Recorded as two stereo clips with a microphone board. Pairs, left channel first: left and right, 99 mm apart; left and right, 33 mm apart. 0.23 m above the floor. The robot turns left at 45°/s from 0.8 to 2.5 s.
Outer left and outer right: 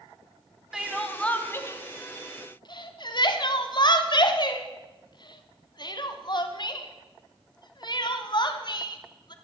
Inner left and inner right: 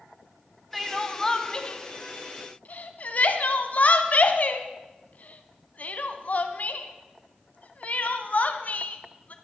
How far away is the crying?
About 1.0 m.